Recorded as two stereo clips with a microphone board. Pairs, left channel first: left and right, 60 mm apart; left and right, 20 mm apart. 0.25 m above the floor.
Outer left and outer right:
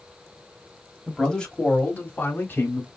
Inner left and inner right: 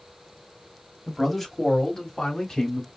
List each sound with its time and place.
1.1 s a man speaking: 5° left (ahead or behind), 1.4 m; by 2.9 s 50° left (ahead or behind), 2.5 m